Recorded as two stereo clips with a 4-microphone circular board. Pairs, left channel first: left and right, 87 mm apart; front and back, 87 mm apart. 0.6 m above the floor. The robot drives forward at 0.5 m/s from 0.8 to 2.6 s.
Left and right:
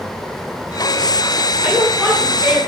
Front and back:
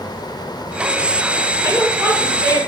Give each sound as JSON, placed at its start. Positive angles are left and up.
{"t": 1.6, "sound": "a woman speaking", "azimuth_deg": -155, "distance_m": 1.4}